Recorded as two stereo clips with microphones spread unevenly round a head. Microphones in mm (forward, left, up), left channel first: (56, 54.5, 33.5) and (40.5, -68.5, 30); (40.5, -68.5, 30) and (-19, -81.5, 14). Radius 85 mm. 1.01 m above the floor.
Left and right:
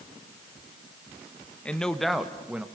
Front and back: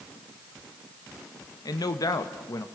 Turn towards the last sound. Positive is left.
turn(degrees=-15)